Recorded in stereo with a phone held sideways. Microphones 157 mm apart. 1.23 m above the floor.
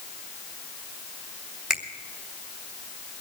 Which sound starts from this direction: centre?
A finger snap, at 1.7 s.